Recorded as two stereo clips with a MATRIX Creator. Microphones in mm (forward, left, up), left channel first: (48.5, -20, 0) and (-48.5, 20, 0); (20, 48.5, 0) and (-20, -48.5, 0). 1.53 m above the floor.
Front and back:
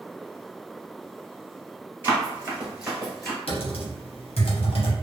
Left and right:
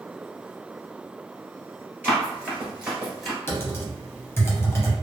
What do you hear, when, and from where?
2.0 s running footsteps: 165° right, 1.7 m; by 3.4 s 15° right, 1.5 m
3.5 s typing on a keyboard: straight ahead, 0.8 m